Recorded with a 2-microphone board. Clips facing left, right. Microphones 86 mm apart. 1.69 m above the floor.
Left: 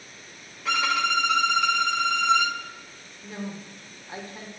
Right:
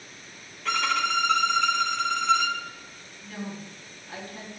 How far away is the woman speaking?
About 1.9 m.